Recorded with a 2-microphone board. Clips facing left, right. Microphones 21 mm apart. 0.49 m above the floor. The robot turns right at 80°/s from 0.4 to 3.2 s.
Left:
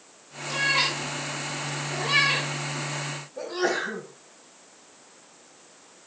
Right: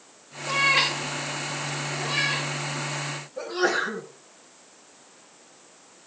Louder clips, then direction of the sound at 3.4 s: Right 2 dB; centre (ahead or behind).